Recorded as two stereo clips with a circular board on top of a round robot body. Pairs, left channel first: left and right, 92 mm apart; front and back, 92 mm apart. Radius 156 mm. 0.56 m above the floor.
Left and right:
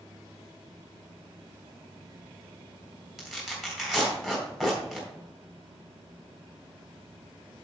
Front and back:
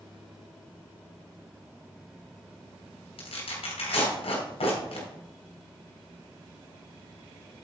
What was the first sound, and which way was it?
Tearing paper, straight ahead.